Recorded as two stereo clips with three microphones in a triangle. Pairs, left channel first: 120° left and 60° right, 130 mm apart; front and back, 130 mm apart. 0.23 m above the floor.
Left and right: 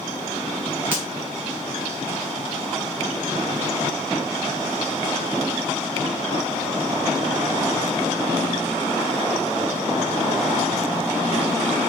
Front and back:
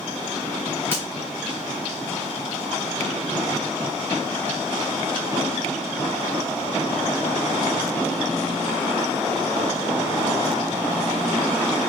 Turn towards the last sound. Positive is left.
turn(degrees=-120)